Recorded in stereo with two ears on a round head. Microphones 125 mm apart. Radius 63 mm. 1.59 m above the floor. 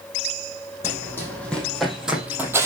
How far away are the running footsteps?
About 4.5 m.